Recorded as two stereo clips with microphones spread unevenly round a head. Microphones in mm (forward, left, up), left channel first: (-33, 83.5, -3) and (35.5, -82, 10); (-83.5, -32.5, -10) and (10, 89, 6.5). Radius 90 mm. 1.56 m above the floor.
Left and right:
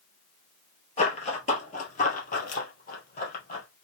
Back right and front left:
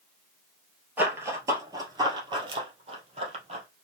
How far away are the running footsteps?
About 1.7 m.